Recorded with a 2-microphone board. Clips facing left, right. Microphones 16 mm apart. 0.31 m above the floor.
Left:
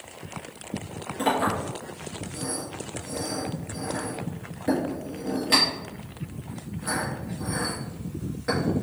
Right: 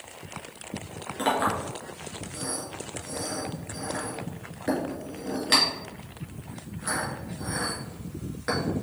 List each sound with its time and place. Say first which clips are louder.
1.2 s a clink: left 1 dB; 25° right (ahead or behind), 2.5 m